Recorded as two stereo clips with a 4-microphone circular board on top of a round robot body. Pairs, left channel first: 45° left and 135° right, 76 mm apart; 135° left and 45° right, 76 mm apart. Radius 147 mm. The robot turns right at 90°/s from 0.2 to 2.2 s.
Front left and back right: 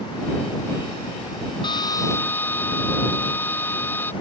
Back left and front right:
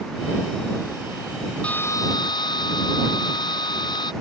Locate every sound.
1.6 s a drill: 60° left; by 4.1 s 110° left